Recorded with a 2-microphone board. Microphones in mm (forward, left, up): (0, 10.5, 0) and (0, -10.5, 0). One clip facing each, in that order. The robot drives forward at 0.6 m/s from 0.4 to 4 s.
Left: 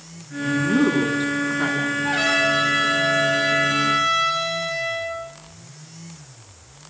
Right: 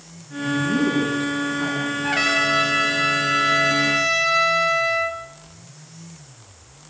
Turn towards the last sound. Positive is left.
turn(degrees=-45)  # may be behind; listen again after turning